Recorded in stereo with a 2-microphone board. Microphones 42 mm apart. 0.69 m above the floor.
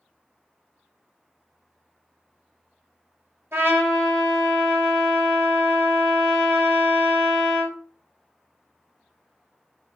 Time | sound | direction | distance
3.5 | a trumpet | 75° right (ahead or behind) | 1.7 m